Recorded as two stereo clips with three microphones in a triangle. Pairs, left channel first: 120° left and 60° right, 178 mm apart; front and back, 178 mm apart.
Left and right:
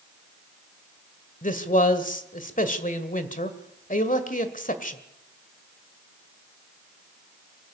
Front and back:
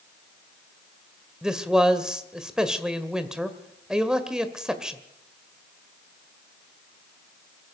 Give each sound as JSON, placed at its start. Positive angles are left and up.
{"t": 1.4, "sound": "a man speaking", "azimuth_deg": 95, "distance_m": 1.8}